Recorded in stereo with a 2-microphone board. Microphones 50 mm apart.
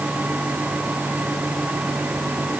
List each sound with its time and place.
Only background noise.